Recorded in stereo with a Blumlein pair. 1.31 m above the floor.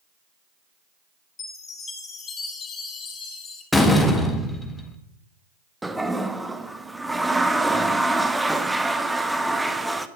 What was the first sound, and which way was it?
A chime, 20° left.